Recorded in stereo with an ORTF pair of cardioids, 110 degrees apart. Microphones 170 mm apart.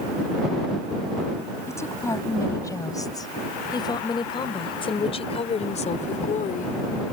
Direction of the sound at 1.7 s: 15° left.